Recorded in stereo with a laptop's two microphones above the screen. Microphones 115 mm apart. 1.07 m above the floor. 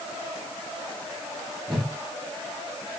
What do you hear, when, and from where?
1.7 s a whoosh: centre (ahead or behind), 0.9 m